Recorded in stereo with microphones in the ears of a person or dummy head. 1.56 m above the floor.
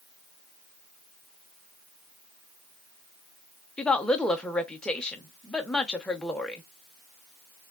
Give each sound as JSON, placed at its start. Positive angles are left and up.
{"t": 3.8, "sound": "a woman speaking", "side_deg": 5, "distance_m": 0.8}